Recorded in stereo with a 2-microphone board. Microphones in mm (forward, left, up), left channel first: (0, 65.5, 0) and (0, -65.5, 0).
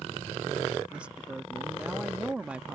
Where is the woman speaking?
10° right (ahead or behind).